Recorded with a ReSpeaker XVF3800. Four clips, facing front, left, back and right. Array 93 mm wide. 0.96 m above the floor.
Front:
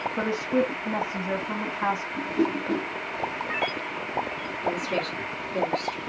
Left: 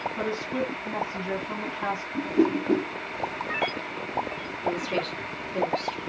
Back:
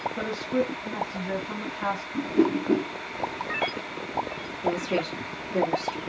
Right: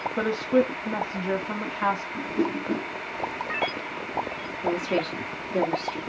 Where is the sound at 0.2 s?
70° right, 1.7 m.